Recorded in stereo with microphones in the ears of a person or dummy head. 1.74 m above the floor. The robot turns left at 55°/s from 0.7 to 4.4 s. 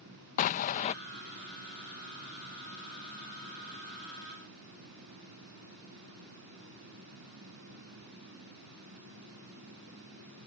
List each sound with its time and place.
0.4 s an explosion: 40° left (ahead or behind); by 0.9 s 35° left (ahead or behind)